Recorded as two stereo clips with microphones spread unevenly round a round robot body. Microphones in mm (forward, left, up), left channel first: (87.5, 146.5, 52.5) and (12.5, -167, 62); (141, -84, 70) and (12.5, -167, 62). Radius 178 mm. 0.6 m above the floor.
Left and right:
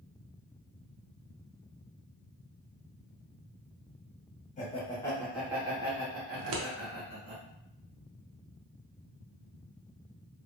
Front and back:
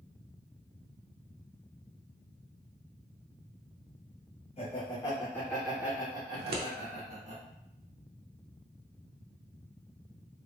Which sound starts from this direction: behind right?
Scissors, at 6.3 s.